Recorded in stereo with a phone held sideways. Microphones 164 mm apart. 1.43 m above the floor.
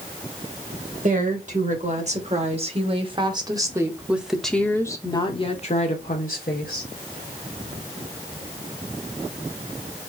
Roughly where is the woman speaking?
Right.